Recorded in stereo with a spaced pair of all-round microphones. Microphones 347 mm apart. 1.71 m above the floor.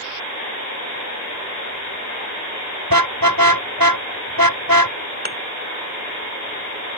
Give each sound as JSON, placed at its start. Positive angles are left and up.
{"t": 2.9, "sound": "a car horn", "side_deg": -70}
{"t": 5.2, "sound": "a thud", "side_deg": -25}